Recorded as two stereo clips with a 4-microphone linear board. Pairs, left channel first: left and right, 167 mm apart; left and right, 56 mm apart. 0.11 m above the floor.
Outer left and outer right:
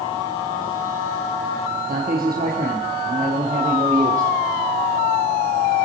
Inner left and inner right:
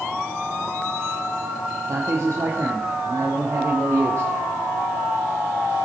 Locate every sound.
1.9 s a man speaking: 65° right (ahead or behind), 3 m; by 4.3 s 50° right (ahead or behind), 3.5 m